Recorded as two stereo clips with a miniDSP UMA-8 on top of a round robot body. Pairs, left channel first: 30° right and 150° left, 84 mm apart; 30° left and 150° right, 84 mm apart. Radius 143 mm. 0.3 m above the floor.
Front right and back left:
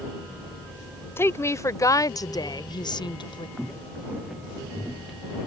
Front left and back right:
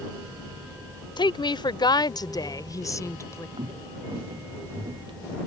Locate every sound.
1.2 s a woman speaking: 30° left; by 3.5 s 25° right
3.6 s footsteps: 120° right; by 5.4 s 125° right